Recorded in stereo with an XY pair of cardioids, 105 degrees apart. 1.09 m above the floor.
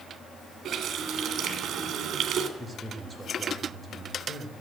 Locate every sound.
0.7 s a running tap: 60° right, 2.5 m
2.6 s a man speaking: 5° right, 4.5 m